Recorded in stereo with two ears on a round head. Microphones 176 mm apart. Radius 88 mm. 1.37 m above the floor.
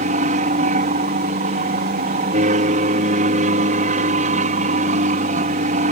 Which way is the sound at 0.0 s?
35° right (ahead or behind).